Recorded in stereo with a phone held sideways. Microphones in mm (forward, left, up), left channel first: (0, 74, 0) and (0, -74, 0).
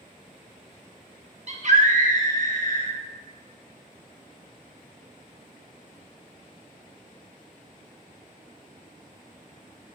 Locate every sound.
1.5 s a scream: 50° right (ahead or behind), 1.1 m; by 2.9 s 65° right (ahead or behind), 1.9 m